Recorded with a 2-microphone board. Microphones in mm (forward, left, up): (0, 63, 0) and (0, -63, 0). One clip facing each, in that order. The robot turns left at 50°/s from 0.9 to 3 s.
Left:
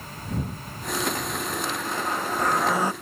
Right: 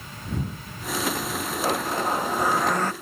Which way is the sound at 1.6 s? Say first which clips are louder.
Right 4 dB; 130° right.